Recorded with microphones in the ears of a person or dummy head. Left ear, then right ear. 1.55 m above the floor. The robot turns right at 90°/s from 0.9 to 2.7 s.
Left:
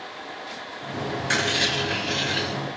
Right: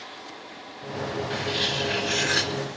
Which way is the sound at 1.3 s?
125° left.